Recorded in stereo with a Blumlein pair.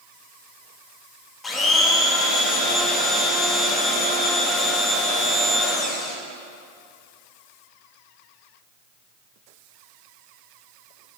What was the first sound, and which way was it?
A blender, 15° left.